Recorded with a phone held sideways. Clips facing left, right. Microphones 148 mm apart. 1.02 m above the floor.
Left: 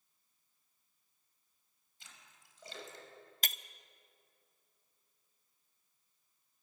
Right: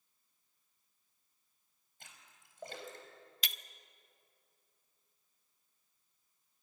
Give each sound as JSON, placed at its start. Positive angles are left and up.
{"t": 2.0, "sound": "a splash", "side_deg": -55, "distance_m": 4.5}
{"t": 3.4, "sound": "breaking glass", "side_deg": 45, "distance_m": 0.7}